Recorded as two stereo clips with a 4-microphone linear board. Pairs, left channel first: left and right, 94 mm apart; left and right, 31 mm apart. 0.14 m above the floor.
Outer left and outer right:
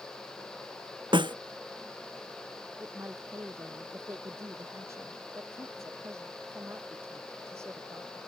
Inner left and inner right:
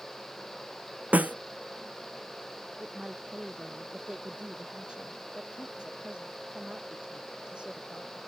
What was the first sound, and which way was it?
A snare drum, 60° right (ahead or behind).